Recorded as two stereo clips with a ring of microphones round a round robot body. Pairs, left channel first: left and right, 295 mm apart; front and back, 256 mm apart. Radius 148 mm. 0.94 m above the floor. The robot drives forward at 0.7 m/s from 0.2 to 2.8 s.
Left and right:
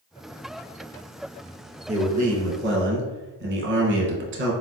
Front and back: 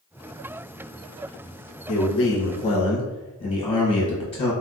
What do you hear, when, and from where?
1.9 s a man speaking: 25° right, 1.1 m; by 4.5 s 60° right, 0.7 m